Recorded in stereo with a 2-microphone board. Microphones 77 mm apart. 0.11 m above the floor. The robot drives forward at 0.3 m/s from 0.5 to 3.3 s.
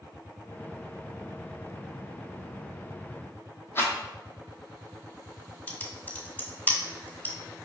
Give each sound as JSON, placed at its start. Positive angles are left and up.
{"t": 3.8, "sound": "a rattle", "side_deg": 30, "distance_m": 1.0}
{"t": 5.7, "sound": "typing on a keyboard", "side_deg": 25, "distance_m": 0.9}